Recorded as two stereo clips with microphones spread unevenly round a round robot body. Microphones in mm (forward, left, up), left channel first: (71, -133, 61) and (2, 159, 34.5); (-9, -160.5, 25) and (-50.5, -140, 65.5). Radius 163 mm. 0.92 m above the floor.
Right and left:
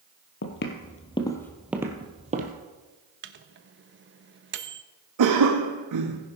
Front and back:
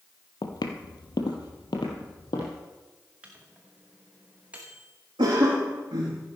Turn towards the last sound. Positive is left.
turn(degrees=125)